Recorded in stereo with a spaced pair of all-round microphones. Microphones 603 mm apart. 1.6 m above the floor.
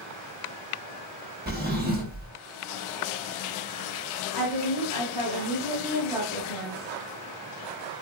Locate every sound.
1.5 s a drawer: 15° right (ahead or behind), 0.7 m
4.3 s a woman speaking: 75° left (ahead or behind), 1.3 m